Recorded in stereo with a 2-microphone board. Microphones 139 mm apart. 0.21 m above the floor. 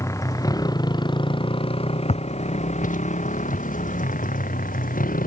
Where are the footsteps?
55° left (ahead or behind); by 5.3 s 80° left.